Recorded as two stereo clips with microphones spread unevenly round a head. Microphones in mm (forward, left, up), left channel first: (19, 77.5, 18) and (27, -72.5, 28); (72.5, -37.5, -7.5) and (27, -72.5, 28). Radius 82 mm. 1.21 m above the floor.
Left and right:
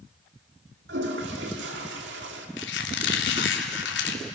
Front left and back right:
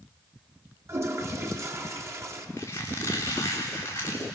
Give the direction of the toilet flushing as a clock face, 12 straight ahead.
4 o'clock.